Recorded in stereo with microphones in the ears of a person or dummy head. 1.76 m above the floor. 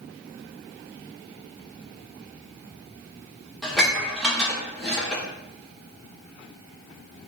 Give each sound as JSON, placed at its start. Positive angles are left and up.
{"t": 3.6, "sound": "dishes clattering", "side_deg": -5, "distance_m": 1.0}